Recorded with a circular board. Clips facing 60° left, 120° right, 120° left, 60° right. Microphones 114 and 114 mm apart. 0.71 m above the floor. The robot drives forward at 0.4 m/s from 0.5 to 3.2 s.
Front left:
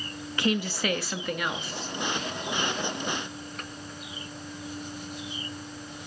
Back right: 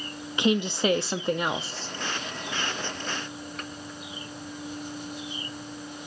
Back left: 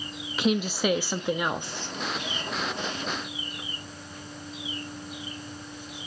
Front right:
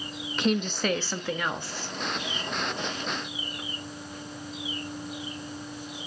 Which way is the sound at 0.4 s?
160° right.